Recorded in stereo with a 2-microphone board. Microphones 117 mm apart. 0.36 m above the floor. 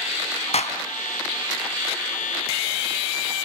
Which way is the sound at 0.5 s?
65° left (ahead or behind).